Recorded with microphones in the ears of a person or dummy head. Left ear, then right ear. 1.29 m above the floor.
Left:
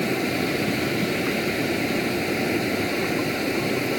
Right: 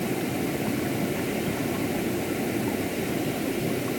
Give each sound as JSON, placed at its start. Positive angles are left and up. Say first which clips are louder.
{"t": 0.0, "sound": "a fan", "louder": "left 5 dB", "side_deg": 50}